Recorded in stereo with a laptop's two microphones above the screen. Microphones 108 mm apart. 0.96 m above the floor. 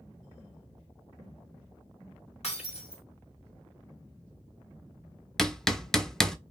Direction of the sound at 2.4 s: 65° left (ahead or behind).